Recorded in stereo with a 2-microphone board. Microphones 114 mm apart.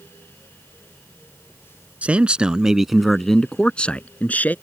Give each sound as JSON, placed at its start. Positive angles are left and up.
{"t": 2.0, "sound": "a man speaking", "side_deg": -10}